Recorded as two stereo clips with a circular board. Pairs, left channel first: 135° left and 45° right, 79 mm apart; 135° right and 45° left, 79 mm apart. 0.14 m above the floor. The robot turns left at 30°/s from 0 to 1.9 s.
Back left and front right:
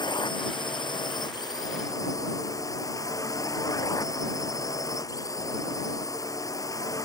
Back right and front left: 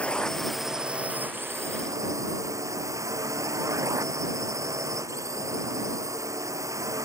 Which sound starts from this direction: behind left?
A drone, at 0.0 s.